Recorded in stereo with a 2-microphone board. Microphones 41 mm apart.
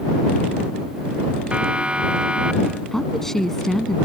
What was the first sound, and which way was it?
A siren, 25° right (ahead or behind).